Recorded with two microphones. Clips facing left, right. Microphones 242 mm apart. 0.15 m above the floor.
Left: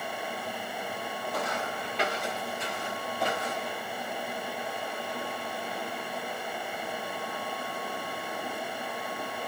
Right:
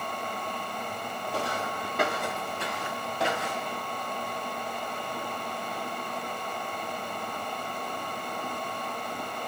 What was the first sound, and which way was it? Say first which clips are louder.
Footsteps: right 2 dB; 30° right (ahead or behind).